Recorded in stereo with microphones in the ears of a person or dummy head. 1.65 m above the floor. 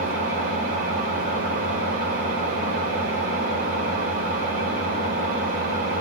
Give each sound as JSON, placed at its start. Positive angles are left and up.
{"t": 0.0, "sound": "an engine running", "side_deg": -45, "distance_m": 1.8}